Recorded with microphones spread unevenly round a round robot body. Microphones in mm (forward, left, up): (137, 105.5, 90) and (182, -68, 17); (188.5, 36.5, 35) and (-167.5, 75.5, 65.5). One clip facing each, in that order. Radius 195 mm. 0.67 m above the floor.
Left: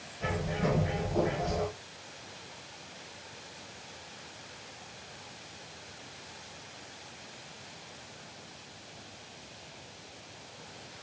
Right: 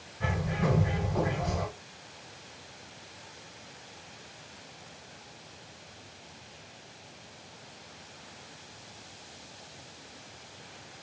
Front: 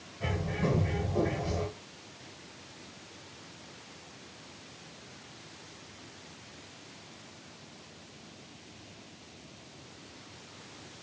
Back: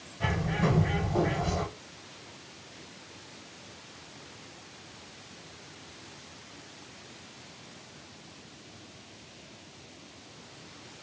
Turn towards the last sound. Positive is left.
turn(degrees=-125)